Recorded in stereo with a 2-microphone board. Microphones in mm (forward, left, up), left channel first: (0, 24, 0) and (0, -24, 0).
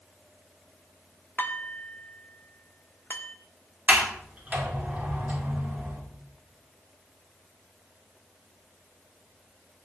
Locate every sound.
1.4 s dishes clattering: 40° left (ahead or behind), 0.9 m
3.9 s a sliding door: 30° right (ahead or behind), 2.5 m